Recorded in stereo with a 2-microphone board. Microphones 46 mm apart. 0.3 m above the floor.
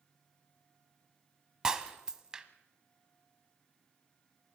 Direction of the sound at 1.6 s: 15° right (ahead or behind).